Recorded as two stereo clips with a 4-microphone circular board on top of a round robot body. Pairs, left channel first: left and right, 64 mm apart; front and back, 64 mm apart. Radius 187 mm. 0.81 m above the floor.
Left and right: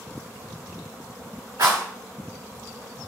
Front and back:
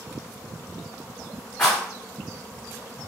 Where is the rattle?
95° right, 1.5 m.